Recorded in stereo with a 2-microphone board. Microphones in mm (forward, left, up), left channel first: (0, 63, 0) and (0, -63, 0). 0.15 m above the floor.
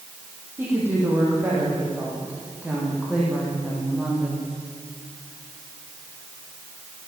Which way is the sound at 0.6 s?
20° right (ahead or behind).